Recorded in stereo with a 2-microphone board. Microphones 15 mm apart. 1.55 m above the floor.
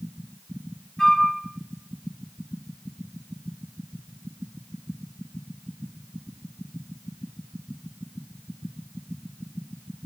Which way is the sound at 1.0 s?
35° left (ahead or behind).